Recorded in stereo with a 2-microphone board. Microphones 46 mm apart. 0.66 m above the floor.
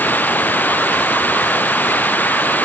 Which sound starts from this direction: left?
Running water, at 0.0 s.